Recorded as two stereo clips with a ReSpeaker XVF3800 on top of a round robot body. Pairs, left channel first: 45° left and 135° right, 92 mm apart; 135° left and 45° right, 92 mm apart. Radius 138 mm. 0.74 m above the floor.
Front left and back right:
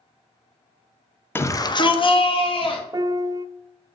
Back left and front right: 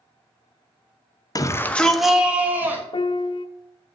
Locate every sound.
1.4 s a shout: 100° left, 0.9 m; by 2.8 s 25° left, 2 m
2.9 s a piano: 170° left, 0.5 m